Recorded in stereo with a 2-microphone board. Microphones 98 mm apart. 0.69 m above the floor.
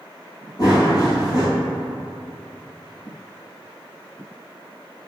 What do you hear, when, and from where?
0.6 s running footsteps: 40° left (ahead or behind), 1.4 m